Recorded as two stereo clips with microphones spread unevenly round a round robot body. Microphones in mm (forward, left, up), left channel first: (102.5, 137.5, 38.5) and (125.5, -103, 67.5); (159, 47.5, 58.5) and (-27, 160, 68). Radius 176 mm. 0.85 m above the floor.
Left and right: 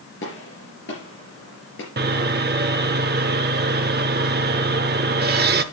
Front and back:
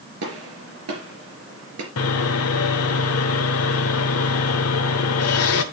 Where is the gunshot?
155° left, 3.5 m.